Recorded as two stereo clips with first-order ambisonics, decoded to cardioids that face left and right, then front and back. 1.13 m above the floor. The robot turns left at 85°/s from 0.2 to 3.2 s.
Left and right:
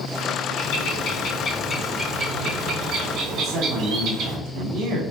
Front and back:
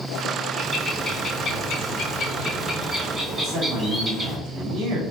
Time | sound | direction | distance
0.6 | a bird | 105° left | 1.4 m
3.4 | a man speaking | 130° right | 1.8 m